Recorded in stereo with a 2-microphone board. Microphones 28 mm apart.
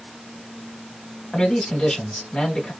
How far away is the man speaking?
About 1.0 m.